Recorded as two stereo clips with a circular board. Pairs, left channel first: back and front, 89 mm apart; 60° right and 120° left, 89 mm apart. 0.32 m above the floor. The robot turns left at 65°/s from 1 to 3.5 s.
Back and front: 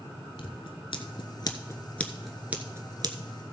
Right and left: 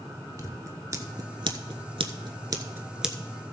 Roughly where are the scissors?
Behind.